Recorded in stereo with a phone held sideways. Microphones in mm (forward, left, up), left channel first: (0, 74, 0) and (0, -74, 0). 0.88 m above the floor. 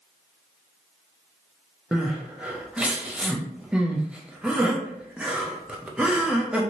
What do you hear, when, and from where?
1.9 s crying: 5° right (ahead or behind), 0.6 m